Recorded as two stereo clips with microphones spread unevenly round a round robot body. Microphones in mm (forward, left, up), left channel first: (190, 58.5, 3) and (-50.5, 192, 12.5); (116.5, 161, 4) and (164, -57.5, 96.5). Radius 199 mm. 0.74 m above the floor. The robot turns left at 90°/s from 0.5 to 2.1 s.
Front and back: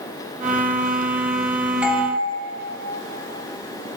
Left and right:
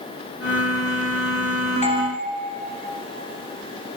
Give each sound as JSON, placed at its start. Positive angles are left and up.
{"t": 1.8, "sound": "a doorbell", "azimuth_deg": 65, "distance_m": 2.5}